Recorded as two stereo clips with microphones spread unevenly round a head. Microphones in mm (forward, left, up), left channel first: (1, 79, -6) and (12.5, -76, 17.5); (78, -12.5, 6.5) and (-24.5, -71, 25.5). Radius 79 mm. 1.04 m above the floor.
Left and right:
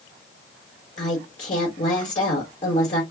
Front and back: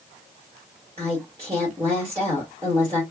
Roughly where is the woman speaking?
Behind left.